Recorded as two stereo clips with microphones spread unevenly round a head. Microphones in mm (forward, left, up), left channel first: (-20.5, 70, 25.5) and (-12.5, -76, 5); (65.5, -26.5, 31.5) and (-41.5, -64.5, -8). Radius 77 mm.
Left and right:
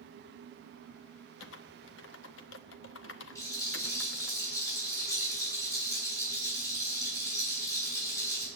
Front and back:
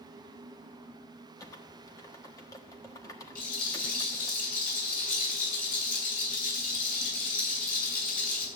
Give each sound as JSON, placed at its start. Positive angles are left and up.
{"t": 1.4, "sound": "typing on a keyboard", "azimuth_deg": 95, "distance_m": 1.1}
{"t": 3.4, "sound": "a rattle", "azimuth_deg": 20, "distance_m": 7.5}